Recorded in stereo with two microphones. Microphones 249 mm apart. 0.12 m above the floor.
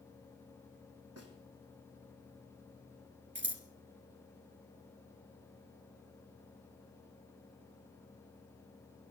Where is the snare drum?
75° right (ahead or behind), 3.5 m.